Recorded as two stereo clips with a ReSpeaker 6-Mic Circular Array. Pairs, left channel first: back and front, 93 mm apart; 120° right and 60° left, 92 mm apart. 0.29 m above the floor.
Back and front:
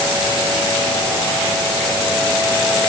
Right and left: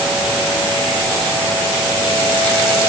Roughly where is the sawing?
I don't hear sawing.